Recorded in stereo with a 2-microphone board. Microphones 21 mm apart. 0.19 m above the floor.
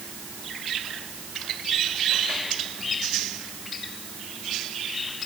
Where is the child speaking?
I don't hear a child speaking.